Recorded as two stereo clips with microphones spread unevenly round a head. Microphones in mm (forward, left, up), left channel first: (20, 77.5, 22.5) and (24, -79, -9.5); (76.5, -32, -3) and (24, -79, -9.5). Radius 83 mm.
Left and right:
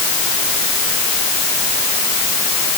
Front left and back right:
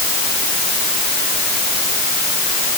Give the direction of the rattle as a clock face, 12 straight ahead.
I don't hear a rattle.